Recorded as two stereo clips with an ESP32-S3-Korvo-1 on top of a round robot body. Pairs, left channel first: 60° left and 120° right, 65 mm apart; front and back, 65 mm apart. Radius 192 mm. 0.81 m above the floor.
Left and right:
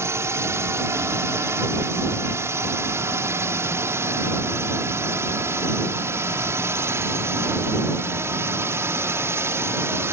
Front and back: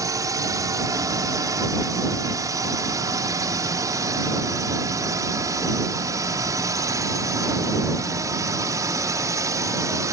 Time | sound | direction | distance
0.0 | a drone | 160° right | ?